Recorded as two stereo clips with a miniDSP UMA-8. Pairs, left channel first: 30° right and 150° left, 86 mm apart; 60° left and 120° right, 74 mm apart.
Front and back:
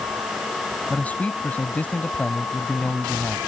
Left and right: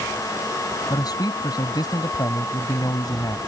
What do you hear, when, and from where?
0.9 s a man speaking: 40° left